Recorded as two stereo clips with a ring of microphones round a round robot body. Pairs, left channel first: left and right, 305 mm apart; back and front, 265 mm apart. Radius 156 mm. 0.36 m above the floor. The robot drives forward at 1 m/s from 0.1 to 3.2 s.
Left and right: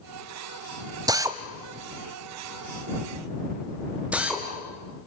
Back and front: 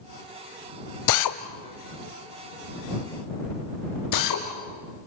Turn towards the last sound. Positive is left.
turn(degrees=-175)